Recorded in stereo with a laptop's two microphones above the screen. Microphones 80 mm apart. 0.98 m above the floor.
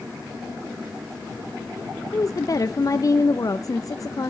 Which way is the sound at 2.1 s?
45° left (ahead or behind).